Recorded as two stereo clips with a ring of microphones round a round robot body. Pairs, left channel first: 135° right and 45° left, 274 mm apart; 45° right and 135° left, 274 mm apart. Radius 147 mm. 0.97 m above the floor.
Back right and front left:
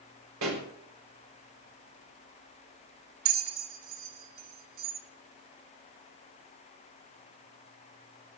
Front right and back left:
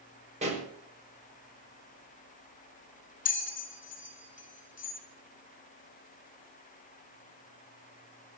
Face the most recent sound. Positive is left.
turn(degrees=15)